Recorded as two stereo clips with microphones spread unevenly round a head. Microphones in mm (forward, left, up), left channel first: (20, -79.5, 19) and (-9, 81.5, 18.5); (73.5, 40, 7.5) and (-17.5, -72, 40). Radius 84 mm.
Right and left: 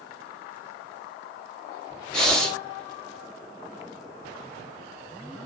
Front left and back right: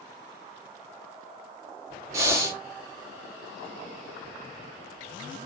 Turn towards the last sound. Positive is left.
turn(degrees=-160)